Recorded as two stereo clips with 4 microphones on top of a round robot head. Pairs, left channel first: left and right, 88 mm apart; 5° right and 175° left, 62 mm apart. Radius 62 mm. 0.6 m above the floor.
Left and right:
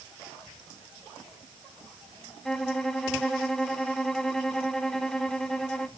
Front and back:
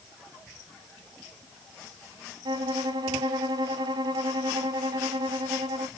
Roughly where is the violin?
Behind.